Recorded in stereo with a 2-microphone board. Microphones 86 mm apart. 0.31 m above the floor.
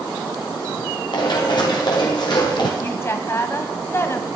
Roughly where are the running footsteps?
Left.